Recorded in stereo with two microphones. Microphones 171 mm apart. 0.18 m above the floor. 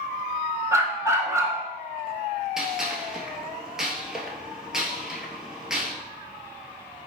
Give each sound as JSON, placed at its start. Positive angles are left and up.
{"t": 0.7, "sound": "a dog barking", "side_deg": -20, "distance_m": 0.6}
{"t": 2.6, "sound": "a gunshot", "side_deg": -5, "distance_m": 0.8}